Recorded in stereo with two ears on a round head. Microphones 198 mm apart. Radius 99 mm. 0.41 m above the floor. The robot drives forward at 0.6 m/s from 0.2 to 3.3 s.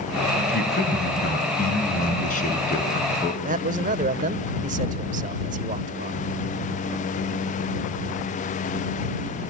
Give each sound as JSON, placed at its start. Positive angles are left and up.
{"t": 0.5, "sound": "a man speaking", "side_deg": 50, "distance_m": 3.5}
{"t": 3.4, "sound": "a man speaking", "side_deg": -35, "distance_m": 1.2}